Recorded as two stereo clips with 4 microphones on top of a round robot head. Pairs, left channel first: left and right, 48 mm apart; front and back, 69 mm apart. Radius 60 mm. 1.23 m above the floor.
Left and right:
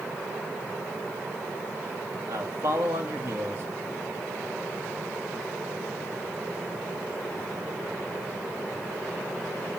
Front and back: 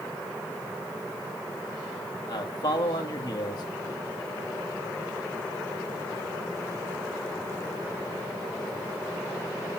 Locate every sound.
2.3 s a man speaking: 40° right, 2 m